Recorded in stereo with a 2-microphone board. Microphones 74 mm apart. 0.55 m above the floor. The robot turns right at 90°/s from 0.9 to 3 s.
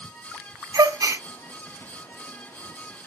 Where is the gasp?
65° right, 0.6 m; by 1.2 s 35° right, 0.6 m.